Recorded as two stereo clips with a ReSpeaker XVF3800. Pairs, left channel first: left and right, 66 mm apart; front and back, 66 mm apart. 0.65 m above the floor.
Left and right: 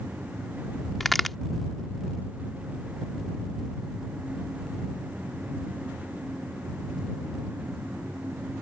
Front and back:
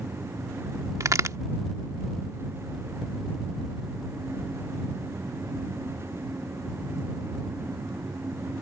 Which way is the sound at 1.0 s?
Straight behind.